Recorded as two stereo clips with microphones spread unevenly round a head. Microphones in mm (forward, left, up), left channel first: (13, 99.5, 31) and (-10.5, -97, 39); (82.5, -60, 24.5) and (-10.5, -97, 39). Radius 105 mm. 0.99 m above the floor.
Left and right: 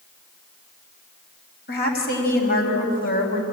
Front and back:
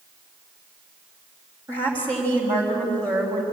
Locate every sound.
1.7 s a woman speaking: 125° left, 5.5 m; by 3.4 s 135° left, 6 m